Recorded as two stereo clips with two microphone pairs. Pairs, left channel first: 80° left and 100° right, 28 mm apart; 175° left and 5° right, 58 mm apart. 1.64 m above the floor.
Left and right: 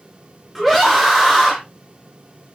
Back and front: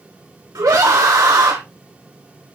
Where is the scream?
15° right, 1.2 m.